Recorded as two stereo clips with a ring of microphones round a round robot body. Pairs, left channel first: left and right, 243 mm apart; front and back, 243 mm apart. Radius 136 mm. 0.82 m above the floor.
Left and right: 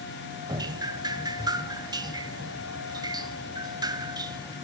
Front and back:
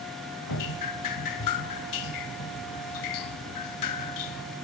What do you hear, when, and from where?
0.5 s dripping: 15° right, 2.0 m